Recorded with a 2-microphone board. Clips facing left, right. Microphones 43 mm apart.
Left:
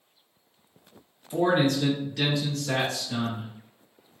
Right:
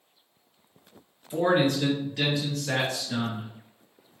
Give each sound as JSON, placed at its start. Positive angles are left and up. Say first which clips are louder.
{"t": 1.3, "sound": "a man speaking", "louder": "even", "side_deg": -5, "distance_m": 1.8}